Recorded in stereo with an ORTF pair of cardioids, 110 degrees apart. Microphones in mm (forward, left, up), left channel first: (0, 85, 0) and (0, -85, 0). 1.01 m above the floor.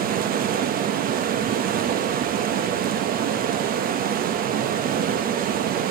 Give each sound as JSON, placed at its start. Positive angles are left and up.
{"t": 0.0, "sound": "running water", "azimuth_deg": -65, "distance_m": 1.1}